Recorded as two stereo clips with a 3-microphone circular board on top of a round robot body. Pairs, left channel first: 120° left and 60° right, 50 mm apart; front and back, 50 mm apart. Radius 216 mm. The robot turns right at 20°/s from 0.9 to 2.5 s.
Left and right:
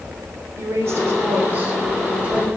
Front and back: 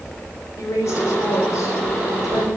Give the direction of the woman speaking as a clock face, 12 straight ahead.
1 o'clock.